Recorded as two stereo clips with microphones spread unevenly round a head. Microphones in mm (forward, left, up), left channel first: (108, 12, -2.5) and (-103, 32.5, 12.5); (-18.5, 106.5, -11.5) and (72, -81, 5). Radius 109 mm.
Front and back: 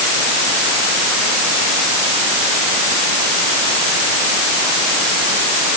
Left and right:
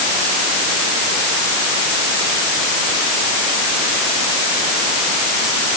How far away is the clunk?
I don't hear a clunk.